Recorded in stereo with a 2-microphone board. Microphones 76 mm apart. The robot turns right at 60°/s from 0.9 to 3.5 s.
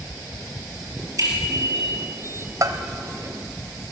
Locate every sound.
1.2 s a bicycle bell: 130° right, 5 m; by 1.8 s 90° right, 5 m
2.6 s a bell: 55° right (ahead or behind), 1.2 m